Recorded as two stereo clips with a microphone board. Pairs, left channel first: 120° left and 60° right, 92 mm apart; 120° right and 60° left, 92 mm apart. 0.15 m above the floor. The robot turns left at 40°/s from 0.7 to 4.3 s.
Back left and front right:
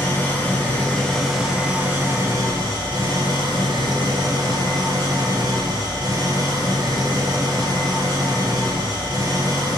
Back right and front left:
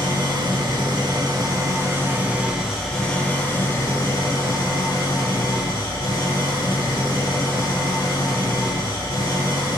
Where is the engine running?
55° left, 0.9 m; by 9.8 s 90° right, 0.9 m.